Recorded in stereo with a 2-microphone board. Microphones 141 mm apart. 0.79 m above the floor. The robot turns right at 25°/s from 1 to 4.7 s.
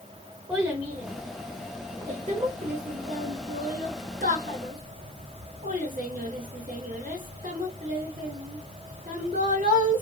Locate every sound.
0.5 s a child speaking: 15° right (ahead or behind), 1.1 m; by 10.0 s 70° right (ahead or behind), 1.1 m